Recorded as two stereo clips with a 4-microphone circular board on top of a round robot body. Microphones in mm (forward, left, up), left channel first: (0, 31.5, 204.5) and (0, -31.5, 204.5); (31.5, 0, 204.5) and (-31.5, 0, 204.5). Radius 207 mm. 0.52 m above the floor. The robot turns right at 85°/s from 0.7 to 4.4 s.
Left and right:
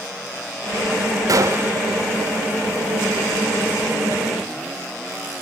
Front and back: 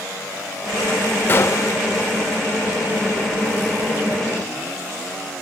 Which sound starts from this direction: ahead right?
A gunshot, at 1.3 s.